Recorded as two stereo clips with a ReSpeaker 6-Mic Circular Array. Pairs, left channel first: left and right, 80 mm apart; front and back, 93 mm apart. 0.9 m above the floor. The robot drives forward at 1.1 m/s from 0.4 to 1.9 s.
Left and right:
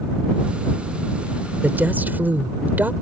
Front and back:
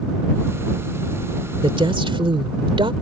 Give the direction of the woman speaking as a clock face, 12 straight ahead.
5 o'clock.